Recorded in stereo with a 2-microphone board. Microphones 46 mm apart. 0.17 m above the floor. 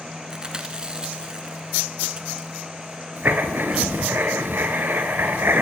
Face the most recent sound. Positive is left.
turn(degrees=-50)  # may be behind; listen again after turning